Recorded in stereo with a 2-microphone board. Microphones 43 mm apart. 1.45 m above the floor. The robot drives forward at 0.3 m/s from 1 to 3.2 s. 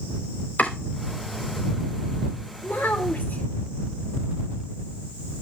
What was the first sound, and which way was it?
Chopping, 45° left (ahead or behind).